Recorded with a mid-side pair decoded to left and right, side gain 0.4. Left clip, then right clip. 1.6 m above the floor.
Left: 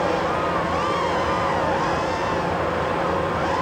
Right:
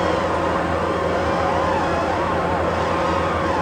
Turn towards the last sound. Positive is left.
turn(degrees=-45)